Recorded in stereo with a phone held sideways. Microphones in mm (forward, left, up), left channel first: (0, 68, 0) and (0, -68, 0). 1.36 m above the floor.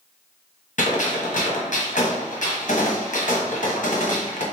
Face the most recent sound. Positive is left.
turn(degrees=65)  # may be behind; listen again after turning